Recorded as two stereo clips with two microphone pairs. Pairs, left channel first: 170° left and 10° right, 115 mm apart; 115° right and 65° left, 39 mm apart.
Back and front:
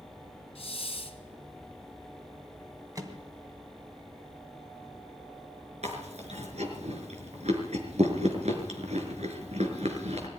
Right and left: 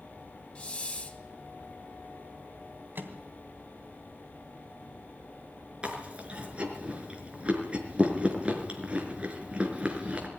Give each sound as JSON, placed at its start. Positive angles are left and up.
{"t": 0.6, "sound": "a hiss", "azimuth_deg": -165, "distance_m": 3.0}
{"t": 3.0, "sound": "a microwave", "azimuth_deg": 50, "distance_m": 3.0}
{"t": 5.8, "sound": "chewing", "azimuth_deg": 5, "distance_m": 4.5}